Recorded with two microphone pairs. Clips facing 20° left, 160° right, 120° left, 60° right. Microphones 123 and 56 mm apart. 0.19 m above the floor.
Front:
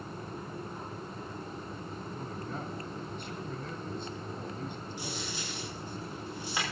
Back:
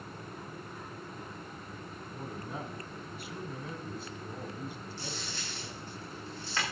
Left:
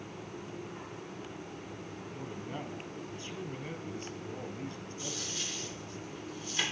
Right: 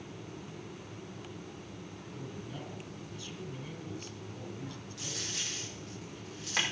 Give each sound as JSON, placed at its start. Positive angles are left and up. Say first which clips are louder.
{"t": 2.1, "sound": "a man speaking", "louder": "back 1 dB, left 3 dB", "azimuth_deg": 120, "distance_m": 1.4}
{"t": 5.0, "sound": "a dropped coin", "louder": "front 3 dB, even", "azimuth_deg": -55, "distance_m": 7.5}